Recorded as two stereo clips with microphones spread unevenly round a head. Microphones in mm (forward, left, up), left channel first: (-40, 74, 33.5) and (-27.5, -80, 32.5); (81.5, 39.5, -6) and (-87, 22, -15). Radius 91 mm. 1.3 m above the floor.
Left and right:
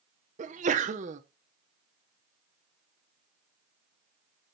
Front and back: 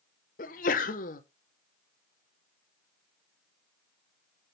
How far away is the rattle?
No rattle in this recording.